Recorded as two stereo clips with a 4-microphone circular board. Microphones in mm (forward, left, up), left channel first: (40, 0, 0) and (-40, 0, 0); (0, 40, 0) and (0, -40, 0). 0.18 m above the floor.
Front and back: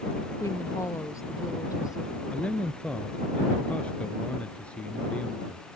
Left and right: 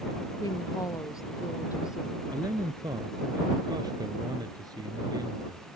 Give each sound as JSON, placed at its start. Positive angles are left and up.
{"t": 0.4, "sound": "a woman speaking", "azimuth_deg": 50}
{"t": 2.3, "sound": "a man speaking", "azimuth_deg": -75}